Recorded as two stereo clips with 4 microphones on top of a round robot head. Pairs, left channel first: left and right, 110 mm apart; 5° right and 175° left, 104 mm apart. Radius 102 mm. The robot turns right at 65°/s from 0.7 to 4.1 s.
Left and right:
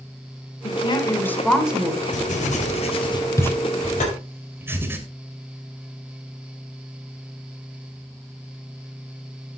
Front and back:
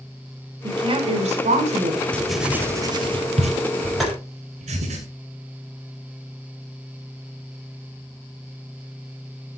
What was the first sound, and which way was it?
A woman speaking, 125° left.